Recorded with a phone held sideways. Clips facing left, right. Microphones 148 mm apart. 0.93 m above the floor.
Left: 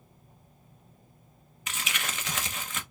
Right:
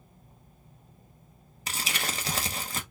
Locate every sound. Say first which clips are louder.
1.7 s crumpling: right 2 dB; 35° right (ahead or behind), 0.9 m